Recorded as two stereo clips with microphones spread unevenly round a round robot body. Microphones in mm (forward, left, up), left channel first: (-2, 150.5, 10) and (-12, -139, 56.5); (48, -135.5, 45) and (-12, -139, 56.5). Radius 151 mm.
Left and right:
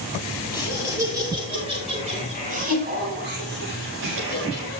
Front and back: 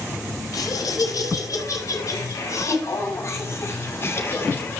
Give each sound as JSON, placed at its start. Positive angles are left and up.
{"t": 0.5, "sound": "laughter", "azimuth_deg": -5, "distance_m": 6.5}